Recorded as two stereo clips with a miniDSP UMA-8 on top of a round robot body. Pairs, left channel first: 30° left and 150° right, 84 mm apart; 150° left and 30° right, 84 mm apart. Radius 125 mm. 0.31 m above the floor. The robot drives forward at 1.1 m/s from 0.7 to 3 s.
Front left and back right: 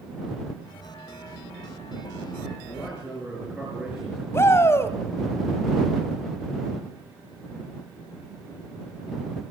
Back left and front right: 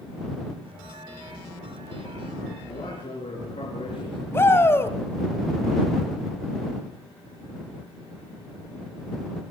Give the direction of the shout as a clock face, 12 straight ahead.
9 o'clock.